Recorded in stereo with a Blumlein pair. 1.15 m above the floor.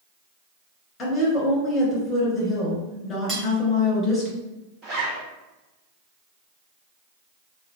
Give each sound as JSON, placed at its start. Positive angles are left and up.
{"t": 1.0, "sound": "a woman speaking", "azimuth_deg": 25, "distance_m": 1.9}
{"t": 3.3, "sound": "cutlery clinking", "azimuth_deg": -10, "distance_m": 1.1}
{"t": 4.8, "sound": "a zipper", "azimuth_deg": -30, "distance_m": 1.8}